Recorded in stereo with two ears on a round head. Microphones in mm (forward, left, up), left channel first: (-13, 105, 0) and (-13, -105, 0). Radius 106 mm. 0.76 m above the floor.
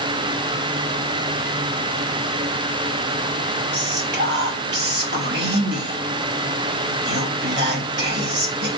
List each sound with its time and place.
3.7 s whispering: 45° right (ahead or behind), 1.2 m